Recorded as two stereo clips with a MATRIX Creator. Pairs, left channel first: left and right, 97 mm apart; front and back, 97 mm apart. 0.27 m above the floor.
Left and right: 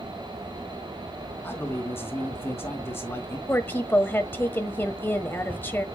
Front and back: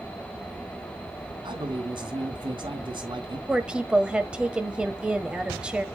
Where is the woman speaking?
115° left, 1.3 m.